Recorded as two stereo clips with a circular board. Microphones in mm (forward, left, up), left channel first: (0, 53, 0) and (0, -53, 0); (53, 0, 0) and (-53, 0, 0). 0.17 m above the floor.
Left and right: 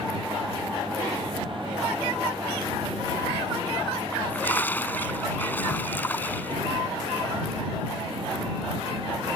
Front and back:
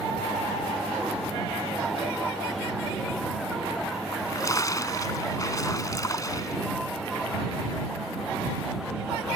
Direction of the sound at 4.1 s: 30° left.